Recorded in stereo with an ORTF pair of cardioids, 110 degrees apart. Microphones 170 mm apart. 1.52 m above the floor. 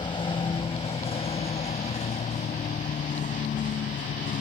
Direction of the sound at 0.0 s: 30° left.